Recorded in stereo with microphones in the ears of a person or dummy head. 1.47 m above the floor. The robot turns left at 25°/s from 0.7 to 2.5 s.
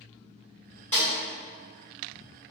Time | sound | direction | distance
0.9 | a snare drum | 10° left (ahead or behind) | 1.7 m